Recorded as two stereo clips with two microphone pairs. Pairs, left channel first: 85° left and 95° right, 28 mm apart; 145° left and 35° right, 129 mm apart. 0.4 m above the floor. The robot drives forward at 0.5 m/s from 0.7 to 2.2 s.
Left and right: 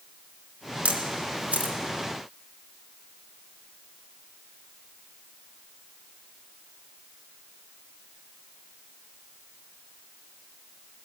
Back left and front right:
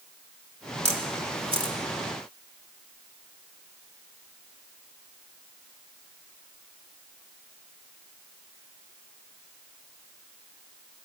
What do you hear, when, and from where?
0.8 s a camera shutter: 65° right, 1.6 m; by 1.8 s 80° right, 1.4 m